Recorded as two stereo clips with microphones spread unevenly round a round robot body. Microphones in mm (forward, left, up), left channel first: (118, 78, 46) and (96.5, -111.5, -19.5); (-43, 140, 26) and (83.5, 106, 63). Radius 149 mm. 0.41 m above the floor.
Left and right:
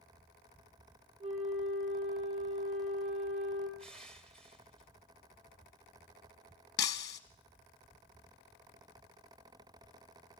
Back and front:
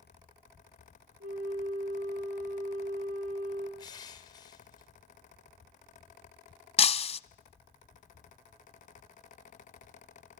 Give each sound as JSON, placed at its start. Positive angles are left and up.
{"t": 1.2, "sound": "a flute", "azimuth_deg": -40, "distance_m": 5.0}
{"t": 3.8, "sound": "crushing", "azimuth_deg": -175, "distance_m": 2.0}
{"t": 6.8, "sound": "breaking glass", "azimuth_deg": 115, "distance_m": 0.6}